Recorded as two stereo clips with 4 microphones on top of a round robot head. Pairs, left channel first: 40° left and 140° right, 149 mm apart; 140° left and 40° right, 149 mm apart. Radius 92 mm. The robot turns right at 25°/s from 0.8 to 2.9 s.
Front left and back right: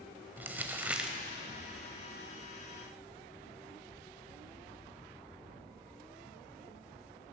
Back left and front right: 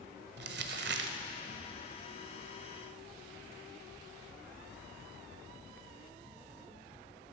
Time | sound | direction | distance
0.4 | crumpling | 60° right | 0.8 m